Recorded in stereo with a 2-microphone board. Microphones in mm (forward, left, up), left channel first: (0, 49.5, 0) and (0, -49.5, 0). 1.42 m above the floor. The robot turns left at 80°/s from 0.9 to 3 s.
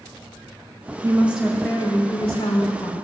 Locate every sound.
1.0 s a woman speaking: 145° right, 2.5 m; by 2.9 s 60° left, 2.5 m